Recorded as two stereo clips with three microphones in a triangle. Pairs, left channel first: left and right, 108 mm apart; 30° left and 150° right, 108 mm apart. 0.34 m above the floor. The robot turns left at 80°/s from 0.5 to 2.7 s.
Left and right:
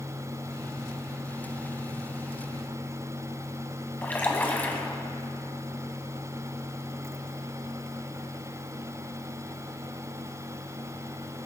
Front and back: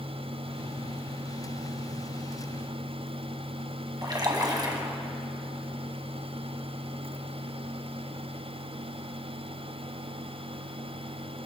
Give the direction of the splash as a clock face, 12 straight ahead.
7 o'clock.